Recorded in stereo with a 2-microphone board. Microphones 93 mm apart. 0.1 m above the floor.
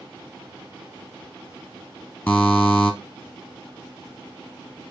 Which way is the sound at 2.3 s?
20° left (ahead or behind).